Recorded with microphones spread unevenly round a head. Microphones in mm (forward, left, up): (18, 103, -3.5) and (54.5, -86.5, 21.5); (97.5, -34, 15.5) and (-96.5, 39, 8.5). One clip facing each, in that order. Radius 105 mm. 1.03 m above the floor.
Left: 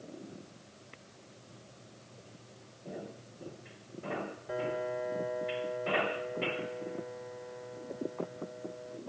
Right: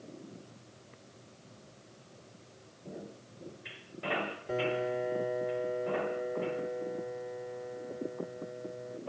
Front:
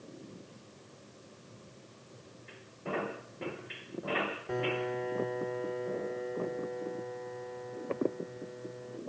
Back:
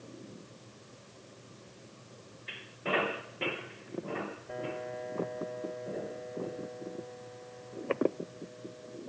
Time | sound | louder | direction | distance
4.5 | a piano | right 3 dB, front 7 dB | 30° right | ?